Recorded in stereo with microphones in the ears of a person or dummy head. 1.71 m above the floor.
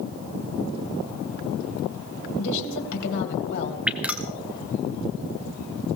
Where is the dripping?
5° right (ahead or behind), 1.0 m.